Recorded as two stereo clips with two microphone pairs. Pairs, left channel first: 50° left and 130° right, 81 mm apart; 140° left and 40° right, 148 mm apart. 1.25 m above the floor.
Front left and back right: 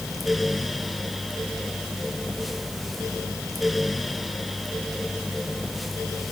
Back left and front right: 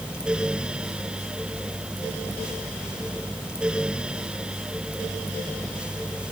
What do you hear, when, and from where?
Only background noise.